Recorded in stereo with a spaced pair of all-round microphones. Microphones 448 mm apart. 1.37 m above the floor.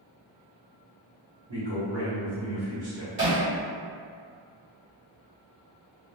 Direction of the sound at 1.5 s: 60° right (ahead or behind).